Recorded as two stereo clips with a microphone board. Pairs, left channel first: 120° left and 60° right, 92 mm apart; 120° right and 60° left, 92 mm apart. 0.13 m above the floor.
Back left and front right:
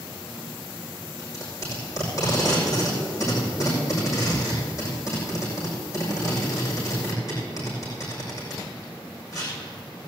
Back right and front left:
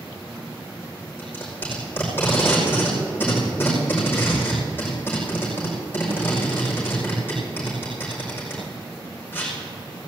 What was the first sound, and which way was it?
Tape being pulled, 175° left.